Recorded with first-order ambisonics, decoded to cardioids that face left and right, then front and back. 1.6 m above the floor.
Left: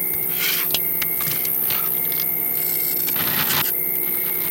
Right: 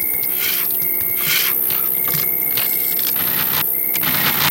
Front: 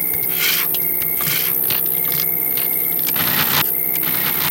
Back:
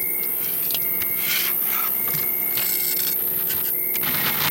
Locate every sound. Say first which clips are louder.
0.0 s an insect: right 1 dB, front 10 dB; 35° right, 0.7 m